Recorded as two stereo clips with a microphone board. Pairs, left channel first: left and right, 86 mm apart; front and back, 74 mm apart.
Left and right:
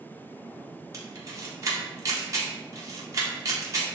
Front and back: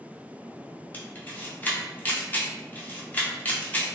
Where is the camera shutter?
60° right, 0.7 m.